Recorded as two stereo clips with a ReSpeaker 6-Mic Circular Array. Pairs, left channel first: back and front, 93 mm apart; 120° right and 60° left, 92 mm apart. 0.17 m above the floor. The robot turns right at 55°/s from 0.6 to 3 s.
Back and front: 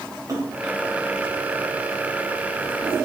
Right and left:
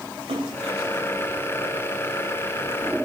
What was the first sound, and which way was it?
A splash, 55° left.